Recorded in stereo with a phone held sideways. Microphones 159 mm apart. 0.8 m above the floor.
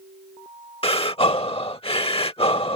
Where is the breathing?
35° left (ahead or behind).